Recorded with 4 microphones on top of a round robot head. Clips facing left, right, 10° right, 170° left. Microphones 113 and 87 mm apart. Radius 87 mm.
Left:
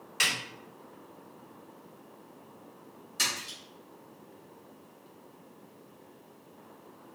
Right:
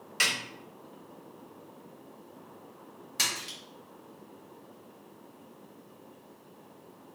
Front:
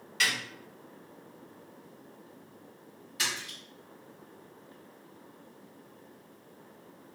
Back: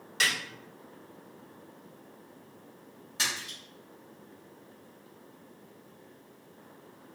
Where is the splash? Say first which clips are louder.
Even, back 1 dB; 120° right, 1.1 m.